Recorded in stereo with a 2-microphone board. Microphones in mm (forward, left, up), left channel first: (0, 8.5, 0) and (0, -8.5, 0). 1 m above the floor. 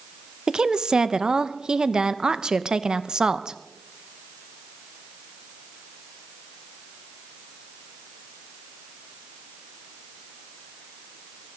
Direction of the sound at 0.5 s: 50° right (ahead or behind).